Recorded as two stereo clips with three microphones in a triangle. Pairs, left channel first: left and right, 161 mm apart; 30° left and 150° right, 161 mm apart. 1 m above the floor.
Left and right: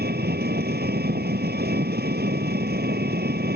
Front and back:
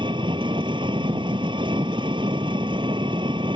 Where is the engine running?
90° right.